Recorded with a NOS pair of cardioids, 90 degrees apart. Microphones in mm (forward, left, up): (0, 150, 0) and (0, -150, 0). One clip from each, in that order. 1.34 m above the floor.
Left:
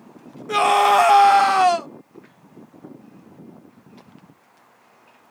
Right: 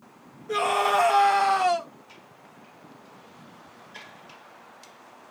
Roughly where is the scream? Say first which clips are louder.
Left 7 dB; ahead left.